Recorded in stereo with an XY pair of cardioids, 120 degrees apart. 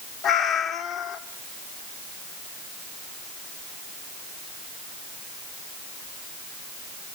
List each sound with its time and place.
0.2 s a cat meowing: 60° left, 1.2 m